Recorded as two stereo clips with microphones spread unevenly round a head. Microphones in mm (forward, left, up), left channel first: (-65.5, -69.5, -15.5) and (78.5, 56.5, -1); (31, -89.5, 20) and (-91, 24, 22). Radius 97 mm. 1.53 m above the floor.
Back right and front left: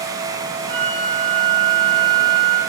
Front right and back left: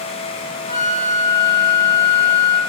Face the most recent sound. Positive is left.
turn(degrees=145)